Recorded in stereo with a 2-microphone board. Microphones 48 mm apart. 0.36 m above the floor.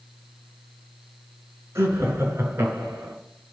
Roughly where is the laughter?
Right.